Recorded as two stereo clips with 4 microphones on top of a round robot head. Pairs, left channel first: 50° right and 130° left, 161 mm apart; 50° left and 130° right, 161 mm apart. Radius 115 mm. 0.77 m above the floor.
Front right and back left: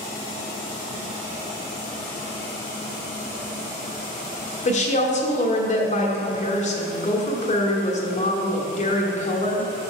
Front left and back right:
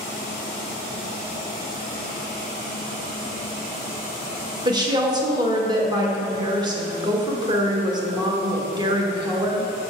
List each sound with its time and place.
4.7 s a woman speaking: 75° right, 1.4 m